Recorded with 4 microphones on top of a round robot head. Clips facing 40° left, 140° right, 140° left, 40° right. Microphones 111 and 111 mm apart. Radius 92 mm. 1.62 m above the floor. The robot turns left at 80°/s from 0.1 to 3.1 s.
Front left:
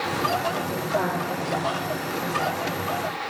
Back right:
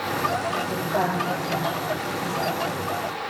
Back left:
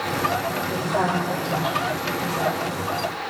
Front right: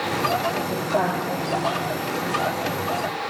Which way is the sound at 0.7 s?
60° right.